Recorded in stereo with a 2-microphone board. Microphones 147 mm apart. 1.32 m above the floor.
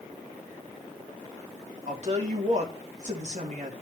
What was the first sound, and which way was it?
A woman speaking, 50° right (ahead or behind).